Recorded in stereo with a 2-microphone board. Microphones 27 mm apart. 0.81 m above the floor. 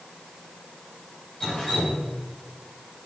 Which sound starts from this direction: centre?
Dripping, at 1.4 s.